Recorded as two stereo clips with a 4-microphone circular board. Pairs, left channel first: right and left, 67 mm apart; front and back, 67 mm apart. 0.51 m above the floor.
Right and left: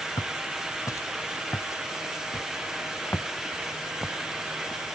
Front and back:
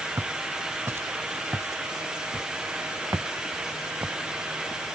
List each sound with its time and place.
0.2 s footsteps: 125° right; by 5.0 s 145° right